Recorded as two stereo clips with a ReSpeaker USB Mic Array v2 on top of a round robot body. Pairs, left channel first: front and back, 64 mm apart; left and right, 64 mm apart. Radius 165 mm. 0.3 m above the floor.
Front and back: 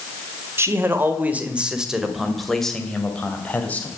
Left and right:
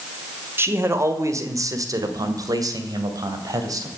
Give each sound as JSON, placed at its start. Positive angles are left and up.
{"t": 0.6, "sound": "a man speaking", "azimuth_deg": -135, "distance_m": 2.5}